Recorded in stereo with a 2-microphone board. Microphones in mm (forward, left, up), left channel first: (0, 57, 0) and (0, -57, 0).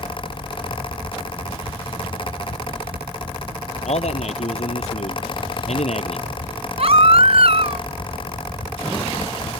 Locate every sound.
3.9 s a man speaking: 75° left (ahead or behind)
6.8 s a baby crying: 60° right (ahead or behind)